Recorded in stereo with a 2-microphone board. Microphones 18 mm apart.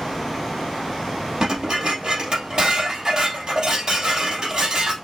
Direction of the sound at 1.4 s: 40° right (ahead or behind).